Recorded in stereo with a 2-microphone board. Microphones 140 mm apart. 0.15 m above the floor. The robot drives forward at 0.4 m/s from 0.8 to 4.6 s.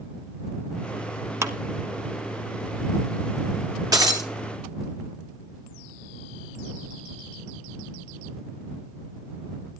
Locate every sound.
1.4 s a clap: 20° right (ahead or behind), 1.0 m
3.9 s breaking glass: 25° right (ahead or behind), 2.0 m